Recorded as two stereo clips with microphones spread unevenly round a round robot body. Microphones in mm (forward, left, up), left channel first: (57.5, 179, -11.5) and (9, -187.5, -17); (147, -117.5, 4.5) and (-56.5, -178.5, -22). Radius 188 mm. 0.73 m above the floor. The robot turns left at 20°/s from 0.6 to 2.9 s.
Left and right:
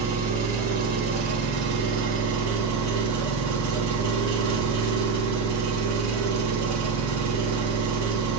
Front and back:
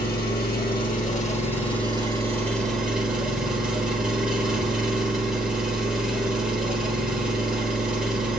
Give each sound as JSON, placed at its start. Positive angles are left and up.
{"t": 0.0, "sound": "an engine running", "azimuth_deg": -30, "distance_m": 1.8}